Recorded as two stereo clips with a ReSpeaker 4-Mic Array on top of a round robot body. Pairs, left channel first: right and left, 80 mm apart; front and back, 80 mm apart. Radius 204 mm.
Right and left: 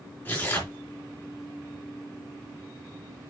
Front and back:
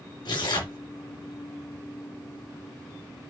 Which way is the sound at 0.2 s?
20° right.